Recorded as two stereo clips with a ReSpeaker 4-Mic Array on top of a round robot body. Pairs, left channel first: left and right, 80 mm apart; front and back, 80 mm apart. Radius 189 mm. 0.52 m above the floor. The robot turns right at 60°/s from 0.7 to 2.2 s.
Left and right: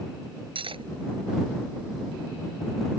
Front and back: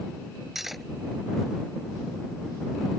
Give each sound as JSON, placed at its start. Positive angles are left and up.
{"t": 0.6, "sound": "cutlery clinking", "azimuth_deg": -95}